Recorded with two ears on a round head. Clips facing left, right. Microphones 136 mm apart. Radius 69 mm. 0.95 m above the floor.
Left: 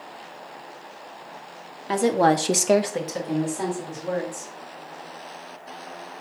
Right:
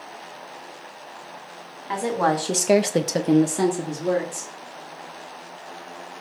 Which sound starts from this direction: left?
A woman speaking, at 1.9 s.